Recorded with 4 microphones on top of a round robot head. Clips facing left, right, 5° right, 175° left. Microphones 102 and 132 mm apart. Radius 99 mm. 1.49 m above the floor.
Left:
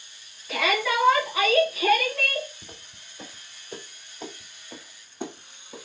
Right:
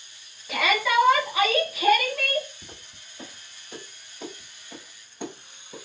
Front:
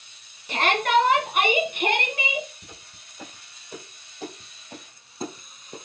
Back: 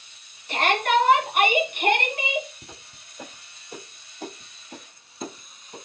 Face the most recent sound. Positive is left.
turn(degrees=0)